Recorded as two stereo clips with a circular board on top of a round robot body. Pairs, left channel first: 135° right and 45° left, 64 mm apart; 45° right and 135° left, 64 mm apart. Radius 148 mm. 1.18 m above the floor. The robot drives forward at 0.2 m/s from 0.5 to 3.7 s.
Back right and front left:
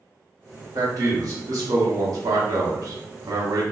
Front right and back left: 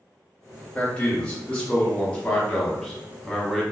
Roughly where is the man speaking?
Ahead left.